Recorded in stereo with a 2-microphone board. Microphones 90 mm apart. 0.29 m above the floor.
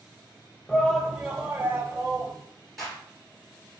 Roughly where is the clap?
Centre.